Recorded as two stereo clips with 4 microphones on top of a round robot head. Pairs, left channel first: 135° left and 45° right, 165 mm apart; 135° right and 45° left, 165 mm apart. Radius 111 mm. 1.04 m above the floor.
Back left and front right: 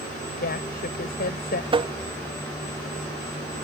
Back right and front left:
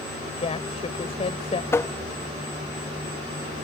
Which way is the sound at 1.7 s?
70° right.